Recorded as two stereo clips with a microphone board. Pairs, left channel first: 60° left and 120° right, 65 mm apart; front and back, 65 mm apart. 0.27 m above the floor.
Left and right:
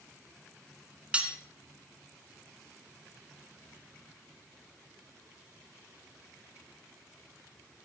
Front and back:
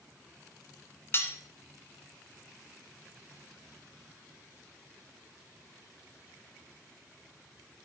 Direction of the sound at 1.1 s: 50° right.